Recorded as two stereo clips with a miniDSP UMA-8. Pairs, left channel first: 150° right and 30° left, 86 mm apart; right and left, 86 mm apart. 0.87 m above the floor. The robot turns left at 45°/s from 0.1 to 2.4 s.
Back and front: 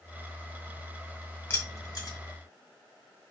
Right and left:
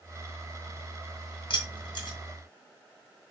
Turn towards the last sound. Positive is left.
turn(degrees=-130)